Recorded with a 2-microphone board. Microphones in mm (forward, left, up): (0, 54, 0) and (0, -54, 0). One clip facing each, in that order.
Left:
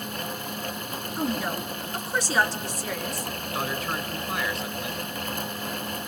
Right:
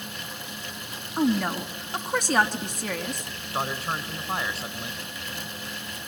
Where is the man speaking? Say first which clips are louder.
Right 1 dB; 30° right (ahead or behind), 2.5 m.